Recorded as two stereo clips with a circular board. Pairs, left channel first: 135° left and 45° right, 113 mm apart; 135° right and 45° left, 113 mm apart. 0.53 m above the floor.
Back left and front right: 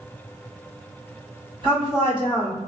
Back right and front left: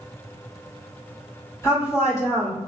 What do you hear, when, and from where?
1.6 s a woman speaking: 80° right, 1.7 m